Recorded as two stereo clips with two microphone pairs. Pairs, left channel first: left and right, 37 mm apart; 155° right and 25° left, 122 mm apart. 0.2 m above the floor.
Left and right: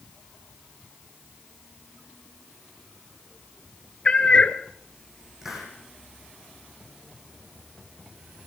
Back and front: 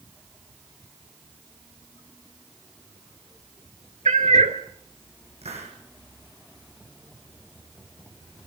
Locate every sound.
4.0 s a cat meowing: 30° left, 1.3 m
5.4 s a hiss: 5° right, 4.5 m